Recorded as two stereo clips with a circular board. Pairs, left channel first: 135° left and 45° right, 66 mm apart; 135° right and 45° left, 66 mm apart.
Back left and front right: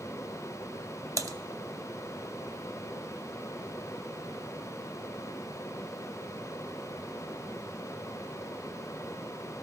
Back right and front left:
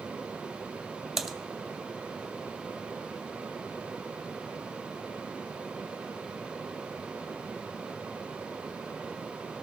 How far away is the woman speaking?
I don't hear a woman speaking.